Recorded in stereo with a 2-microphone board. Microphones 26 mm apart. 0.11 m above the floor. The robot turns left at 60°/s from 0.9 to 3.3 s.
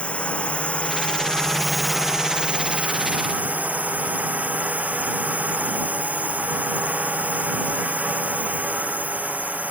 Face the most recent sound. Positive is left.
turn(degrees=-95)